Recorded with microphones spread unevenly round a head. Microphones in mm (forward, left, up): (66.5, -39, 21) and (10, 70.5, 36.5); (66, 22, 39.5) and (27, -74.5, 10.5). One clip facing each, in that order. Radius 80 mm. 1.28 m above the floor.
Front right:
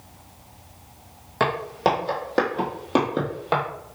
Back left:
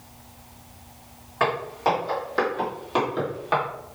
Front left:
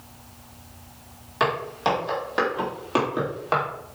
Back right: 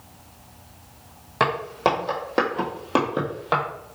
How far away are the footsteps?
About 2 m.